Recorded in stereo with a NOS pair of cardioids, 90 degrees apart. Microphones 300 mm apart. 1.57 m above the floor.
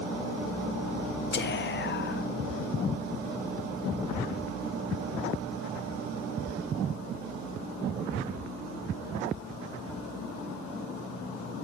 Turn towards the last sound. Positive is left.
turn(degrees=35)